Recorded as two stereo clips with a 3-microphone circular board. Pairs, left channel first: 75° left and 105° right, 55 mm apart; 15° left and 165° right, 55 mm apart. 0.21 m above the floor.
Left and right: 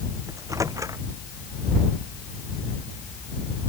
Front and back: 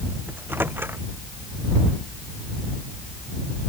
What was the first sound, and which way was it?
A microwave, 115° right.